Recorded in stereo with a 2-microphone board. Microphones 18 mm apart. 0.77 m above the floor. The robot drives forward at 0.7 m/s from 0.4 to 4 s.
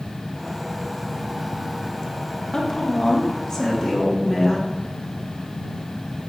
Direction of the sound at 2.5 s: 35° left (ahead or behind).